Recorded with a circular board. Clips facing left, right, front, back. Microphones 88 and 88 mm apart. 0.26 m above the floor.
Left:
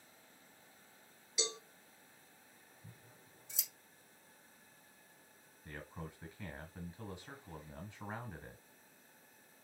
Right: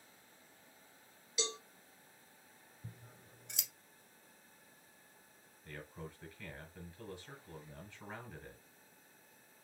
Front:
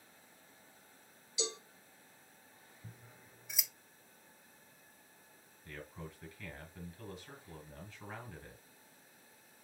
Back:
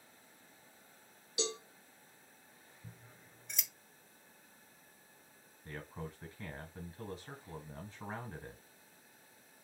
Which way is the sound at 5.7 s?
145° left.